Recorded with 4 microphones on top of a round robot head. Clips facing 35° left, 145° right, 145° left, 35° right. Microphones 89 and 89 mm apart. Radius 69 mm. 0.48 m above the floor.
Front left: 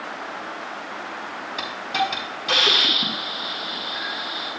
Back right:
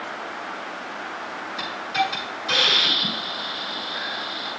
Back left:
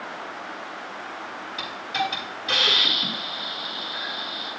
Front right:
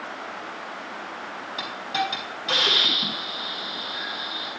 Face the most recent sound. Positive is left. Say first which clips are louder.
# even, even
turn(degrees=15)